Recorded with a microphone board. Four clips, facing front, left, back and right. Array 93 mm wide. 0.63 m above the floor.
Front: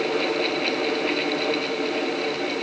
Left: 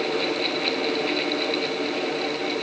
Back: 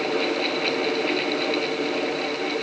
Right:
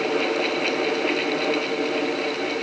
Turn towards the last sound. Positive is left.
No sound to turn to.